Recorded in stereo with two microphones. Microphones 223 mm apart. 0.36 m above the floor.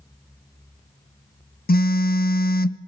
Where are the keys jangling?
I don't hear keys jangling.